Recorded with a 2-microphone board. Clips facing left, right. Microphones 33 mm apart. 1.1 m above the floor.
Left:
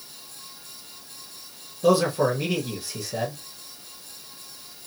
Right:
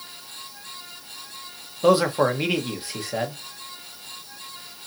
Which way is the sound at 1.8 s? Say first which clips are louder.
Right 2 dB; 35° right (ahead or behind).